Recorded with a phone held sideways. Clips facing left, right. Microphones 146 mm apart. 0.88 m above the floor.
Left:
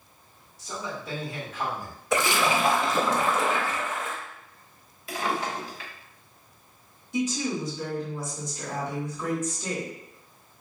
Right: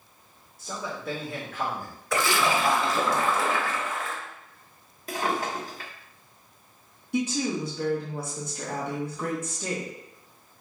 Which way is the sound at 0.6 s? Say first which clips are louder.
Right 1 dB; 60° right (ahead or behind).